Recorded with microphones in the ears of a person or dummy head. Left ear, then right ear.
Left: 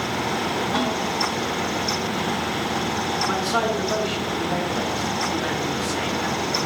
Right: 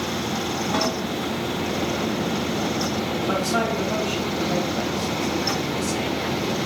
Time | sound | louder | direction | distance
0.7 | a snare drum | right 2 dB | centre (ahead or behind) | 3.5 m
3.3 | a man speaking | right 1 dB | 10° left (ahead or behind) | 1.4 m